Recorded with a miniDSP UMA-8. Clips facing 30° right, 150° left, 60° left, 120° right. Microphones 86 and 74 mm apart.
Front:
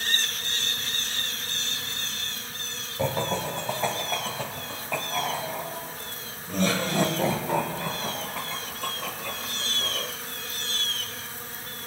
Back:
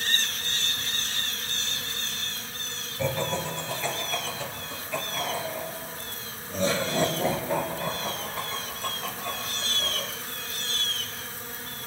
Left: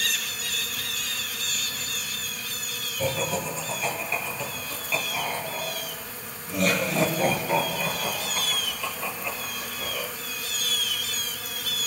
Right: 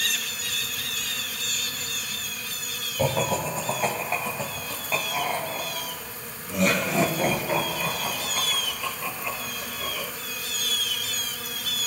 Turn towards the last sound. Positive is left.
turn(degrees=-25)